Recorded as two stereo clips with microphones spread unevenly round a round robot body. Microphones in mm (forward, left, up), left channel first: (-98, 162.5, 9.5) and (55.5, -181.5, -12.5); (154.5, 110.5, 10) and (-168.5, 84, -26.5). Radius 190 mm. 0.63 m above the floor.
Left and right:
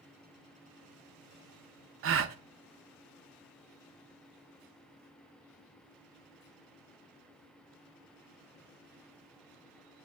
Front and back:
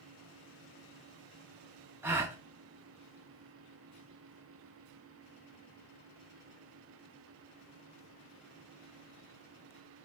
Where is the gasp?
100° right, 0.6 m.